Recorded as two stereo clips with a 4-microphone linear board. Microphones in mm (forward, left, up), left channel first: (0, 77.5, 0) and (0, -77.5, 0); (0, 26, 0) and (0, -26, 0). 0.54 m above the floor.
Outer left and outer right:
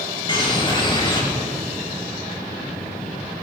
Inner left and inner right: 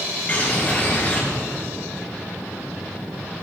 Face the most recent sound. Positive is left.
turn(degrees=30)  # may be behind; listen again after turning